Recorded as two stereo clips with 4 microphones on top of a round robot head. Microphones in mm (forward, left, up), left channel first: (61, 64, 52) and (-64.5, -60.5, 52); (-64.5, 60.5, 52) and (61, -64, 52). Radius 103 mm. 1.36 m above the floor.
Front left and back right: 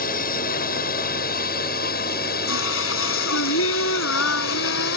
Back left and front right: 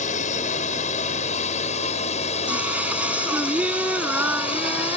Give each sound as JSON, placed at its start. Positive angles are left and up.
{"t": 0.0, "sound": "a drone", "azimuth_deg": 85}
{"t": 2.5, "sound": "singing", "azimuth_deg": 40}